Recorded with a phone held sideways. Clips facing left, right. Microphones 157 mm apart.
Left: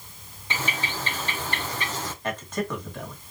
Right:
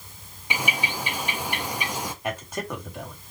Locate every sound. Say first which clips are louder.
0.5 s a bird: right 1 dB; 15° right (ahead or behind), 0.8 m
2.2 s a man speaking: left 4 dB; 10° right (ahead or behind), 2 m